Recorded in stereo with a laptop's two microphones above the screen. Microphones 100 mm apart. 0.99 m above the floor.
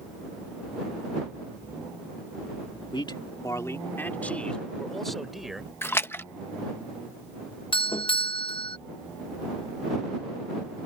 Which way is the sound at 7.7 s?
55° left (ahead or behind).